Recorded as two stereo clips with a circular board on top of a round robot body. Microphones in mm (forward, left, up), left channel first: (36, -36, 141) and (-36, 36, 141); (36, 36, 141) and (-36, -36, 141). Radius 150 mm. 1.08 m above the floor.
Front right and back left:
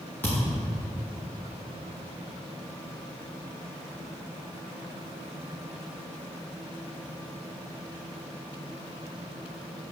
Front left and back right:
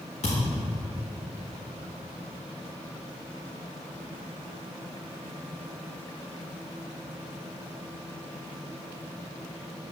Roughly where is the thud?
Ahead left.